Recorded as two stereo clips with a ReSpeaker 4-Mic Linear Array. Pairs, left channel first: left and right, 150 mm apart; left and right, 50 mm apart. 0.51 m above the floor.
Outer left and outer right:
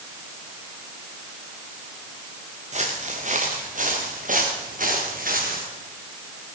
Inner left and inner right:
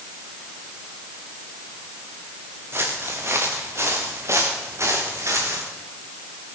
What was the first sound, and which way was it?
Footsteps, 50° right (ahead or behind).